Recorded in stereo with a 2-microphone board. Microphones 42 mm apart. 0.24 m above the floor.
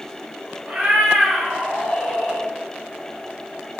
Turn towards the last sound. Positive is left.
turn(degrees=60)  # may be behind; listen again after turning